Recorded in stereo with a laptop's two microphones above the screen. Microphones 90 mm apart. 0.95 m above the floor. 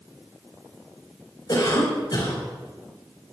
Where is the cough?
50° left (ahead or behind), 5 m.